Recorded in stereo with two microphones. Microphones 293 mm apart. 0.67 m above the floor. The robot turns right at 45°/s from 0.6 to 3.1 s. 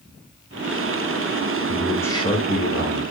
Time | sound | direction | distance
1.7 | a man speaking | 5° right | 2.5 m